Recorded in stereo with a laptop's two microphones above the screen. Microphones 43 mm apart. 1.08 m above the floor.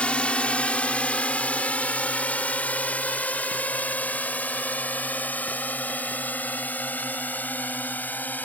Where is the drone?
30° left (ahead or behind); by 8.4 s 45° left (ahead or behind).